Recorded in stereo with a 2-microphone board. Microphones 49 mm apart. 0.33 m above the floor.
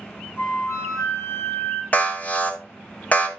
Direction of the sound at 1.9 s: 35° left (ahead or behind).